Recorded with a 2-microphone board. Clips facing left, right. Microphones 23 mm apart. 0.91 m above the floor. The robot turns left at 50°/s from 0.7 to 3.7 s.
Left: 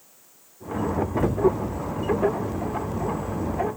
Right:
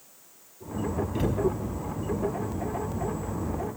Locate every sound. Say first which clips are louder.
1.1 s a cupboard door: left 3 dB; 55° right (ahead or behind), 5.5 m; by 1.4 s 70° right (ahead or behind), 5.5 m